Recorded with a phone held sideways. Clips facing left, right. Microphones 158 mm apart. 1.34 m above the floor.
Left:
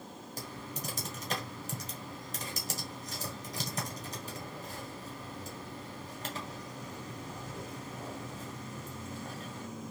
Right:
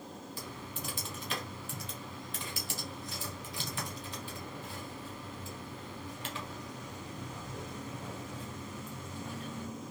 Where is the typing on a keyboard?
40° left (ahead or behind), 1.4 m.